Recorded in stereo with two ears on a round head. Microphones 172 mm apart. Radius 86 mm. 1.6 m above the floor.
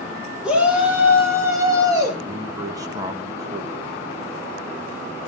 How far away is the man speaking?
About 1.9 m.